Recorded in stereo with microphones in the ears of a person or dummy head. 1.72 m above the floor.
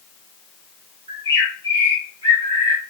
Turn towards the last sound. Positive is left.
turn(degrees=-20)  # may be behind; listen again after turning